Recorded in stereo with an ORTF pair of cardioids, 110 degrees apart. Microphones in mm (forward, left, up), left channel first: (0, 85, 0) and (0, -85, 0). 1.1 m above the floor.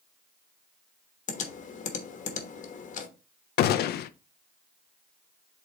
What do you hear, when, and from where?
1.3 s typing on a keyboard: 45° left, 1.2 m
3.6 s a gunshot: 65° left, 0.5 m